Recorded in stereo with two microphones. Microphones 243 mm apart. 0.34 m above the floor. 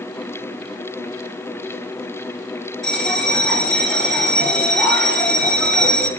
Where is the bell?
Centre (ahead or behind), 3 m.